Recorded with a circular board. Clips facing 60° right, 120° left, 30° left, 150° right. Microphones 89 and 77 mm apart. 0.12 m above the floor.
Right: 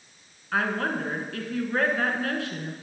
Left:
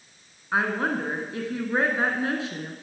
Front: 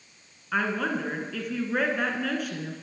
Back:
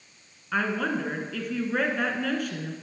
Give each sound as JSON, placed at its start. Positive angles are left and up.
{"t": 0.5, "sound": "a woman speaking", "azimuth_deg": 115, "distance_m": 1.2}